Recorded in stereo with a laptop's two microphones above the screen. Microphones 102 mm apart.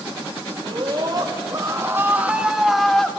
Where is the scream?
50° right (ahead or behind), 2 m; by 3.1 s 5° left (ahead or behind), 1.9 m.